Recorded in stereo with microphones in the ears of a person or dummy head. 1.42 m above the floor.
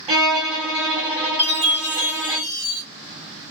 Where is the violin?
35° right (ahead or behind), 2.5 m.